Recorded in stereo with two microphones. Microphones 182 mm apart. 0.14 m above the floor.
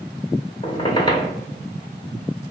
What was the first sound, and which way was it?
A squeak, 25° left (ahead or behind).